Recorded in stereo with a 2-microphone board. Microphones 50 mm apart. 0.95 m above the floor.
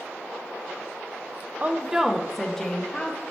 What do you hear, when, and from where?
1.6 s a woman speaking: 35° right (ahead or behind), 0.5 m; by 3.2 s 15° left (ahead or behind), 1.5 m